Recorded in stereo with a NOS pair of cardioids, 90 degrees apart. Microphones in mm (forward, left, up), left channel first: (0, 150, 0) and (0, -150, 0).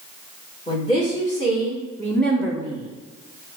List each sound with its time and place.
0.7 s a woman speaking: 20° left, 2 m; by 2.9 s 15° right, 0.8 m